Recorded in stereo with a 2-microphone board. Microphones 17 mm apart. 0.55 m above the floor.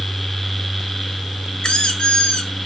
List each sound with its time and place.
1.6 s a squeak: 65° left (ahead or behind), 1.8 m